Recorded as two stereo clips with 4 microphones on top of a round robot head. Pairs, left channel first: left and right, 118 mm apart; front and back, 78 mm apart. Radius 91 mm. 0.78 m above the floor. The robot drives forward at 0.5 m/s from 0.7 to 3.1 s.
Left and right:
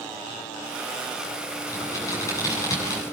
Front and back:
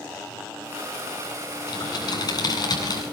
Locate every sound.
1.7 s typing on a keyboard: 25° left, 9.5 m